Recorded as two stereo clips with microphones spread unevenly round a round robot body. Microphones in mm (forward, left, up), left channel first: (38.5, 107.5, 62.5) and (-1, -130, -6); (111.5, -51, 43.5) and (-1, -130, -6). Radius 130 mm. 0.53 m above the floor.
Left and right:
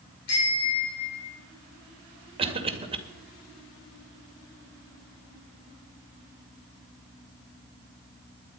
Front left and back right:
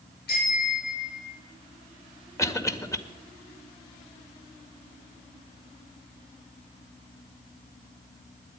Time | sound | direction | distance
0.3 | a bicycle bell | 55° left | 7 m
2.4 | a cough | 40° right | 2 m